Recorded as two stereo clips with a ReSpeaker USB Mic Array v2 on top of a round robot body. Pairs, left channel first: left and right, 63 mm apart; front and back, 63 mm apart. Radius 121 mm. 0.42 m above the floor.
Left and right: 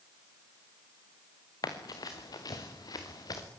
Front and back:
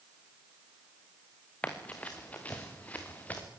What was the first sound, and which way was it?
Running footsteps, 70° left.